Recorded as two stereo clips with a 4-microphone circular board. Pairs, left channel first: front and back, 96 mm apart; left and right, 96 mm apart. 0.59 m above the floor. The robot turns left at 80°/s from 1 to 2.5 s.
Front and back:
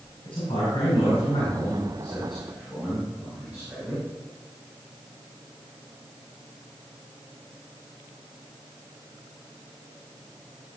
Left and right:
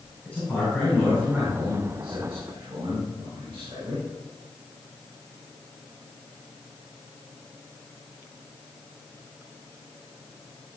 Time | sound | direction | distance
0.2 | a man speaking | 15° left | 5.5 m